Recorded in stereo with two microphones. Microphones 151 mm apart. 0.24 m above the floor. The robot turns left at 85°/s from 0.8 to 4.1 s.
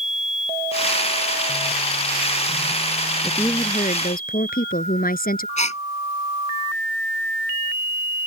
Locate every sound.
3.2 s a woman speaking: straight behind; by 5.5 s 105° left
5.6 s a gasp: 45° left (ahead or behind)